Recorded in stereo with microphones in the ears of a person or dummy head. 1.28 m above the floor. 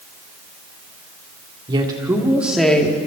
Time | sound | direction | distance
1.7 | a woman speaking | 30° right (ahead or behind) | 3 m